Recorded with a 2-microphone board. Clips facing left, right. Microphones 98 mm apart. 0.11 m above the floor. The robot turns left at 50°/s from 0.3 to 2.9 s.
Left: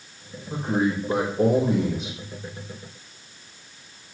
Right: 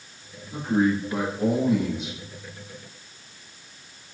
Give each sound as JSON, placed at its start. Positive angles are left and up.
{"t": 0.5, "sound": "a man speaking", "azimuth_deg": 120, "distance_m": 5.5}